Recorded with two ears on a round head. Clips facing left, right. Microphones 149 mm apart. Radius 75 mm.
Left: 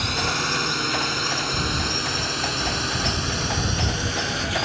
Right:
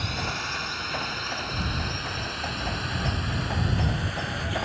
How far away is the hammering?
I don't hear hammering.